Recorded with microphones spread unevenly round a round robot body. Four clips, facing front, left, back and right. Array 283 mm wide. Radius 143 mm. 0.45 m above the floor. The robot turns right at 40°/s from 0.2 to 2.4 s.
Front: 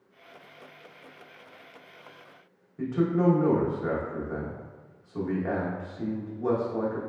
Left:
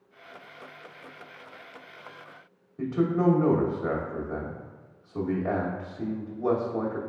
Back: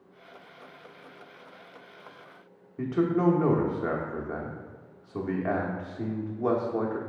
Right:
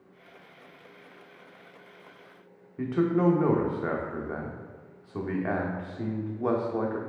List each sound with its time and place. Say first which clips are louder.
2.8 s a man speaking: even, even; 145° right, 0.8 m